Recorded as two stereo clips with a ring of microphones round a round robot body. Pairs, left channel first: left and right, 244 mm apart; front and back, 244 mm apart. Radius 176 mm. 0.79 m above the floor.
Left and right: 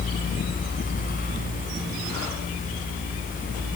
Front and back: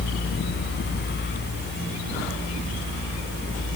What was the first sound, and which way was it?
Only background noise.